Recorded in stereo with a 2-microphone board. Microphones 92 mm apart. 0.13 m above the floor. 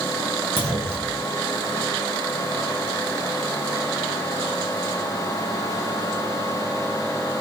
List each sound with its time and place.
0.6 s a clunk: 25° right (ahead or behind), 2 m